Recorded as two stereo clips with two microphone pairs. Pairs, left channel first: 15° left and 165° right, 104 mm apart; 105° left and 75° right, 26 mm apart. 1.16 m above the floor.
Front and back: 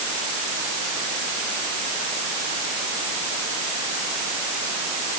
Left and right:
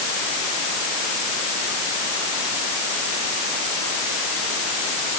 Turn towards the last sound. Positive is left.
No sound to turn to.